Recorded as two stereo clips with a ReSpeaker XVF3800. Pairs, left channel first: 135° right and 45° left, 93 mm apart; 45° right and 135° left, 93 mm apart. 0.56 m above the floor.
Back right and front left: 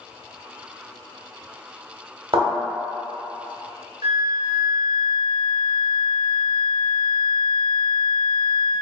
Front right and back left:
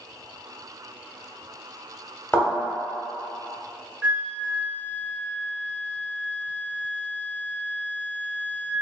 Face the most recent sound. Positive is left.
turn(degrees=60)